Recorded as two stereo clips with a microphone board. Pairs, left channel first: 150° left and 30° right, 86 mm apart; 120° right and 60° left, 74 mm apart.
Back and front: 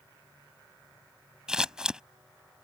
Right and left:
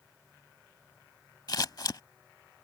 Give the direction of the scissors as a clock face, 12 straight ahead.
4 o'clock.